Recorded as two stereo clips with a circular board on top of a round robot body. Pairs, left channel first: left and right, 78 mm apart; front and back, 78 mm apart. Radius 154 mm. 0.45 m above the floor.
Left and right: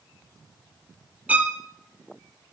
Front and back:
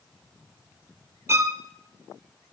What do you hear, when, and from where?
1.3 s a violin: 145° right, 1.4 m